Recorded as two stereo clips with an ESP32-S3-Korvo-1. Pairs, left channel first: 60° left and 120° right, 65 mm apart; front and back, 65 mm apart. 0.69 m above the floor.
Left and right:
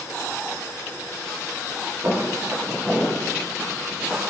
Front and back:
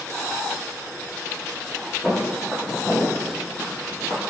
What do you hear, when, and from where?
2.0 s footsteps: 70° right, 1.6 m; by 4.2 s 5° right, 1.2 m